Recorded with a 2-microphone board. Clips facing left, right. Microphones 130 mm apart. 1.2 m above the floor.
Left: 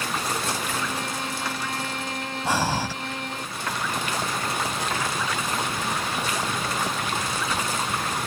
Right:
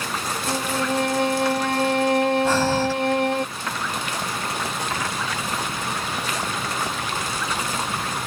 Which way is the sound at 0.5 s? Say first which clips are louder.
Right 5 dB; 65° right (ahead or behind).